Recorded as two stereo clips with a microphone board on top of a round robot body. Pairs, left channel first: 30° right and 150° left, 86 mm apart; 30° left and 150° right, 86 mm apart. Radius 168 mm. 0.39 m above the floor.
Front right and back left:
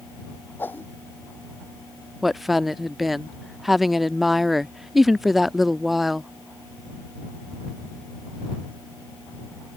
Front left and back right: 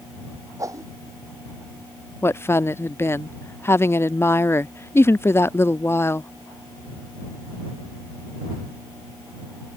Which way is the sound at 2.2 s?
65° left.